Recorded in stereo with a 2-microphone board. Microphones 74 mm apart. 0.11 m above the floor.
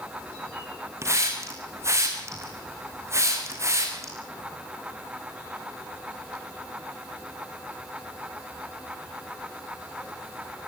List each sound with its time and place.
1.0 s a hiss: 40° right (ahead or behind), 5 m